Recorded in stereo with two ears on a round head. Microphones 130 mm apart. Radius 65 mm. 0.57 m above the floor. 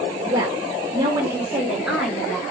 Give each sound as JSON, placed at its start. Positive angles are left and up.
{"t": 0.3, "sound": "a woman speaking", "side_deg": -30, "distance_m": 2.0}